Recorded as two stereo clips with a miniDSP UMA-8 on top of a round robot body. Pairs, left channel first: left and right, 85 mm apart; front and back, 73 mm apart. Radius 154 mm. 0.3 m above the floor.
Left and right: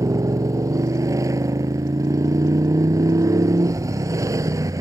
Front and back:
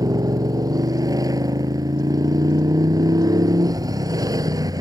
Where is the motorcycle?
145° right.